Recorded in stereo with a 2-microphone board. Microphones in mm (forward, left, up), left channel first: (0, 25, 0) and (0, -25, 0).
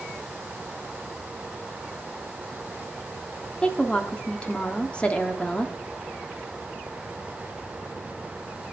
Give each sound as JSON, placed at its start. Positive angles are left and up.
{"t": 3.6, "sound": "a woman speaking", "side_deg": 20, "distance_m": 1.0}